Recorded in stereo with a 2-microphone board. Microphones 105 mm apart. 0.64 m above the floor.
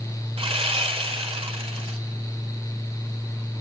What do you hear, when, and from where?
0.4 s sawing: 75° right (ahead or behind), 2 m